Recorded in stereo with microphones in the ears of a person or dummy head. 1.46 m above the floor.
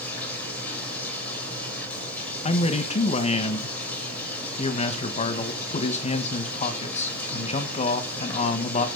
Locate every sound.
0.0 s running water: 10° left (ahead or behind), 3.5 m
2.5 s a man speaking: 30° left (ahead or behind), 1.4 m